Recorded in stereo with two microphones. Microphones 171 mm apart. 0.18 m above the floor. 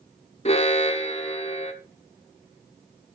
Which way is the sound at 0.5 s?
40° left (ahead or behind).